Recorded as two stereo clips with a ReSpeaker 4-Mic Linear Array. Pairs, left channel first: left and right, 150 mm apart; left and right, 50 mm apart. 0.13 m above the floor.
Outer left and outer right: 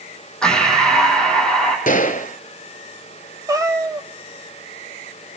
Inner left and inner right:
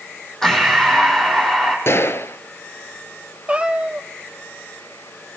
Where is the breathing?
5° left (ahead or behind), 5.5 m.